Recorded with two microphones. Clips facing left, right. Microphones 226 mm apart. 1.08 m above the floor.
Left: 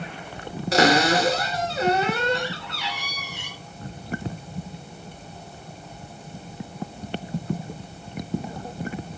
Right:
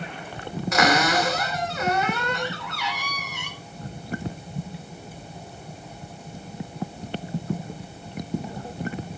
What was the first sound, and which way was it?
A cupboard door, 35° left (ahead or behind).